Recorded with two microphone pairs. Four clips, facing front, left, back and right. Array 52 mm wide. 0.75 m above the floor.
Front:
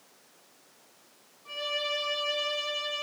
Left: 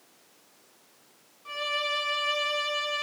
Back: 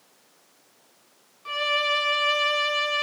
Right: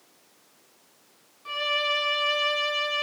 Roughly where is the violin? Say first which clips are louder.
Right 4 dB, back 8 dB; behind.